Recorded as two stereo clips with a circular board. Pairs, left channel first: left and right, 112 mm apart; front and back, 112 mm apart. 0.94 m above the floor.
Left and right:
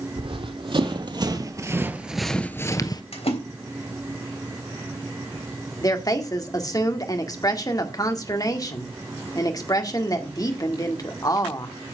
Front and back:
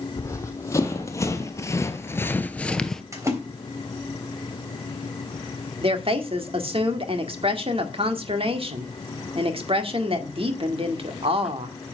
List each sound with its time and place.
0.2 s running footsteps: 60° right, 2 m; by 3.0 s 85° left, 1.1 m
3.1 s a splash: 120° left, 3.5 m
5.8 s a woman speaking: 145° left, 1.8 m